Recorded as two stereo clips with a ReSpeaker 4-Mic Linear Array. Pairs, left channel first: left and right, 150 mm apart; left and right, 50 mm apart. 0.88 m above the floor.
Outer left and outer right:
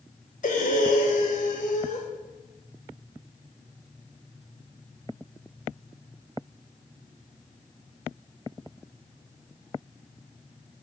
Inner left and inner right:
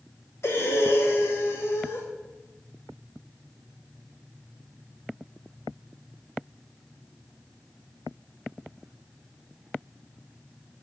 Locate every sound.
0.4 s breathing: 55° left (ahead or behind), 1.2 m